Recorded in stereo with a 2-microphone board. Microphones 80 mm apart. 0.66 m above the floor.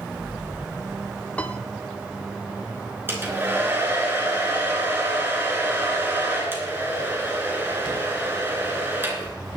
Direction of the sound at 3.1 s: 25° right (ahead or behind).